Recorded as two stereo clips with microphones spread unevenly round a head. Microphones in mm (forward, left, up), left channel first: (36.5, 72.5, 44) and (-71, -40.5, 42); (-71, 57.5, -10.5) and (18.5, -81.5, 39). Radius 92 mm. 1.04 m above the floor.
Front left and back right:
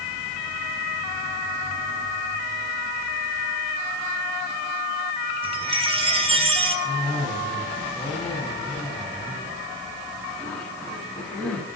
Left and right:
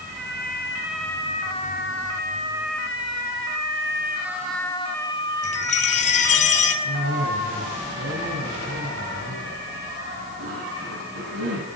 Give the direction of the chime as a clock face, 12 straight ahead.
6 o'clock.